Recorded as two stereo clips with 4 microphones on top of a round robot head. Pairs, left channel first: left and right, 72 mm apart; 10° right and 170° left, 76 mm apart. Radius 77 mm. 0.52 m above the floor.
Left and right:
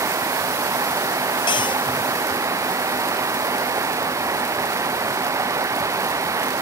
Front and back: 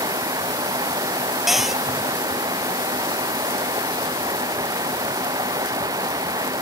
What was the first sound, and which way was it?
Running water, 135° right.